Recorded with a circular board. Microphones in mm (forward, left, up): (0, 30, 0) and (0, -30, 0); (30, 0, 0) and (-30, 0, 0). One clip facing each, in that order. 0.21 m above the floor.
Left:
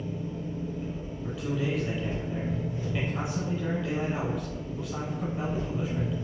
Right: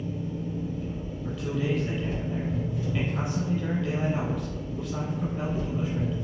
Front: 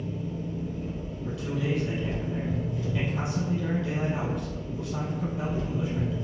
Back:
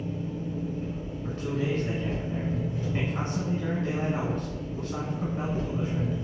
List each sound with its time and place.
0.0 s an engine running: 130° left, 1.8 m
1.2 s a man speaking: 170° left, 1.4 m